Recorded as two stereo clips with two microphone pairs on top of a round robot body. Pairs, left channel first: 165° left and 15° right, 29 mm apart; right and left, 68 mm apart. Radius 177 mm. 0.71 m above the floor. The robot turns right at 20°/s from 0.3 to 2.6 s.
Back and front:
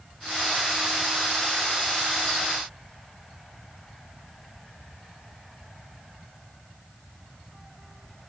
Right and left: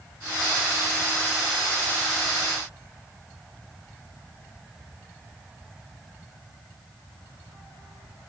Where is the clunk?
I don't hear a clunk.